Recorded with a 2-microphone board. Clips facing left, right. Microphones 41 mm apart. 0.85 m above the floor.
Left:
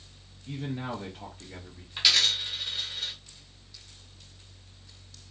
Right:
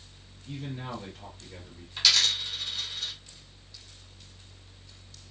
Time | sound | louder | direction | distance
0.5 | a man speaking | left 3 dB | 20° left (ahead or behind) | 0.6 m
2.0 | a dropped coin | even | 20° left (ahead or behind) | 1.0 m